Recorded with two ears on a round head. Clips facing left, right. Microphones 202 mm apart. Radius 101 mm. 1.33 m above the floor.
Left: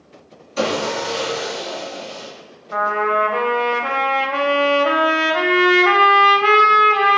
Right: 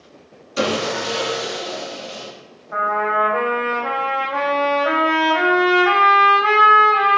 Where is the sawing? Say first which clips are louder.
Even; 20° right (ahead or behind), 0.8 m.